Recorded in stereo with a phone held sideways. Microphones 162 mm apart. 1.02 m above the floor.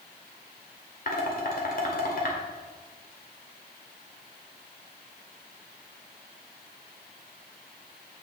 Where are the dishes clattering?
60° left (ahead or behind), 2 m.